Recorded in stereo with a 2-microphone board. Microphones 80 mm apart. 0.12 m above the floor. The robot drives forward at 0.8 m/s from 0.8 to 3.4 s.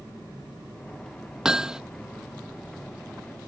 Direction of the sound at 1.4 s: 5° right (ahead or behind).